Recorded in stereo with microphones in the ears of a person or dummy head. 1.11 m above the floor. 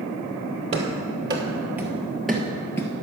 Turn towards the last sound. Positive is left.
turn(degrees=20)  # may be behind; listen again after turning